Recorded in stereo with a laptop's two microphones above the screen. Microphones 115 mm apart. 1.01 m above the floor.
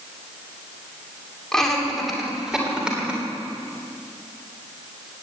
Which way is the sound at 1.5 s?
5° left (ahead or behind).